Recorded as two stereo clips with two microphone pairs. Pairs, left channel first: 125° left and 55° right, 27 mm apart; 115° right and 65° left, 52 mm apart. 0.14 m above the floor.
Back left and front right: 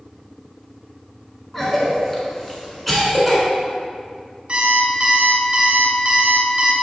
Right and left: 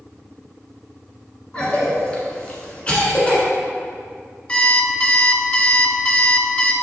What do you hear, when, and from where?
1.5 s a cough: 160° right, 1.4 m
4.5 s an alarm clock: 70° right, 1.1 m